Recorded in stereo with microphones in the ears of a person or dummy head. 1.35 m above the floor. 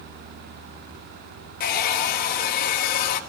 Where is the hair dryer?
45° left (ahead or behind), 1.3 m.